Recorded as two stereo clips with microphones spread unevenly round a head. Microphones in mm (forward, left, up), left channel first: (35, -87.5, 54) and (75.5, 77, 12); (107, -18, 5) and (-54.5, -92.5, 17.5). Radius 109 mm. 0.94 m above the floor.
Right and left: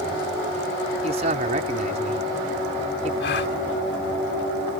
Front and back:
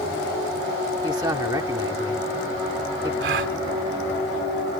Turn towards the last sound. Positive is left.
turn(degrees=-145)